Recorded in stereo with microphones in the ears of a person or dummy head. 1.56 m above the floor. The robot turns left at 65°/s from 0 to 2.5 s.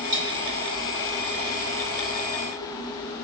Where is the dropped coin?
45° right (ahead or behind), 1.8 m.